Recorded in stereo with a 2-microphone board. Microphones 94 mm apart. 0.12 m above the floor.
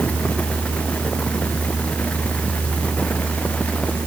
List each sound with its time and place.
Only background noise.